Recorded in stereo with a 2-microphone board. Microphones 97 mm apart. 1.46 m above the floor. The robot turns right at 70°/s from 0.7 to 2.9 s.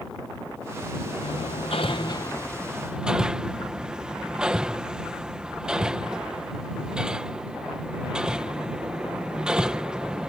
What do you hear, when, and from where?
1.2 s hammering: 70° left (ahead or behind); by 10.3 s 10° right (ahead or behind)